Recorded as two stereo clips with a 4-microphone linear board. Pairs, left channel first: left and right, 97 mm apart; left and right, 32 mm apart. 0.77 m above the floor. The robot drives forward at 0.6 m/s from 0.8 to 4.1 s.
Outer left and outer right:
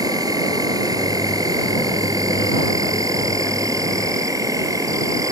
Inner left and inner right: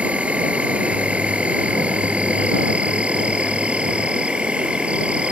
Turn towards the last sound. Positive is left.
turn(degrees=-35)  # may be behind; listen again after turning